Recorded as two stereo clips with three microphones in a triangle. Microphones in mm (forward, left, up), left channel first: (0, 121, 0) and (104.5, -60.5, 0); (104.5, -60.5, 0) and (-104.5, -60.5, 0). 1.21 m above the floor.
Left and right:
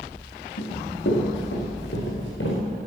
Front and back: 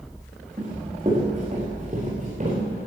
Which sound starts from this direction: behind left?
Running footsteps, at 0.6 s.